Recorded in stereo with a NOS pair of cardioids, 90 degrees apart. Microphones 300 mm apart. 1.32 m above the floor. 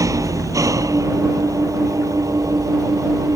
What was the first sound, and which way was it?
An engine running, 10° right.